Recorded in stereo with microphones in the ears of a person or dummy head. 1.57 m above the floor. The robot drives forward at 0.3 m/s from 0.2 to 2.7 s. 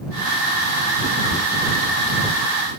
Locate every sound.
1.3 s ticking: 30° left (ahead or behind), 1.8 m